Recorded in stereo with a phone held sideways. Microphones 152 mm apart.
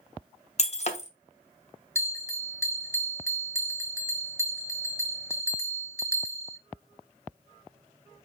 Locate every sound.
0.6 s breaking glass: 45° left (ahead or behind), 1.0 m
1.9 s a bell: 15° left (ahead or behind), 1.1 m